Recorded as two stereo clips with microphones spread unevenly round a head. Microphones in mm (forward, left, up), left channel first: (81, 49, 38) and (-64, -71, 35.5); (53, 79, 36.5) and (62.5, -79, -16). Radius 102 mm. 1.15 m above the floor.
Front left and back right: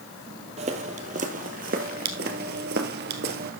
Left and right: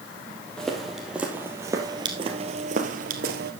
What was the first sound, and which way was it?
Footsteps, 165° left.